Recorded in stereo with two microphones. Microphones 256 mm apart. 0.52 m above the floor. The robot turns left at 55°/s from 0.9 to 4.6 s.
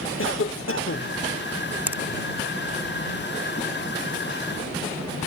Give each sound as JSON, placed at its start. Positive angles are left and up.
{"t": 0.2, "sound": "a cough", "side_deg": 55}
{"t": 1.9, "sound": "a finger snap", "side_deg": -5}